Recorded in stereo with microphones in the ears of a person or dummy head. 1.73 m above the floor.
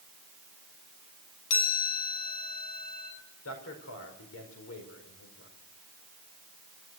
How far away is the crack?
No crack in this recording.